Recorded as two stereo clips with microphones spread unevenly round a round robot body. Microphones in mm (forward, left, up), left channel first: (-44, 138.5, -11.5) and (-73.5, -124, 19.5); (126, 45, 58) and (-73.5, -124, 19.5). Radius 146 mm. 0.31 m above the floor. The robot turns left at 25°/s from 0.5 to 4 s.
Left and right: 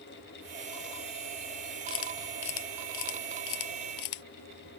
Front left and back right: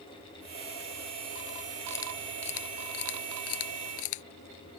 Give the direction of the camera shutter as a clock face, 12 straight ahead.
8 o'clock.